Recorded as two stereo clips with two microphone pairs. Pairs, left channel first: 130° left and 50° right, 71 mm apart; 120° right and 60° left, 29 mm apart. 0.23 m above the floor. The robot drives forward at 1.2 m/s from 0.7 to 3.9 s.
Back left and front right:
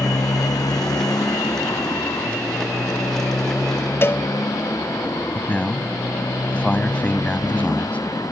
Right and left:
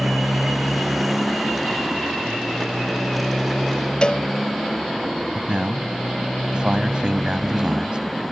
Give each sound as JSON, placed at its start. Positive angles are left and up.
{"t": 0.0, "sound": "a motorcycle", "azimuth_deg": 140}
{"t": 4.0, "sound": "a cowbell", "azimuth_deg": 180}
{"t": 5.3, "sound": "a man speaking", "azimuth_deg": 75}